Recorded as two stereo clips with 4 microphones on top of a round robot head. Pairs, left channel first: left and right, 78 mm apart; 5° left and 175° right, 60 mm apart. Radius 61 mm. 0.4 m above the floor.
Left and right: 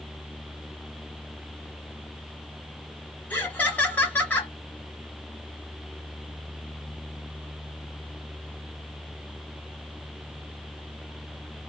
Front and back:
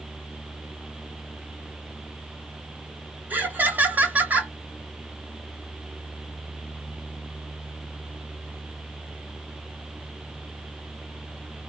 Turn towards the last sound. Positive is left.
turn(degrees=145)